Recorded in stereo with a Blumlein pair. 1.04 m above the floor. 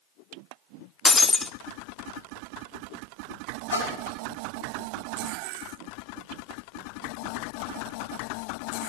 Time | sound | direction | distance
1.1 | breaking glass | 10° left | 0.6 m
3.7 | a splash | 65° left | 5 m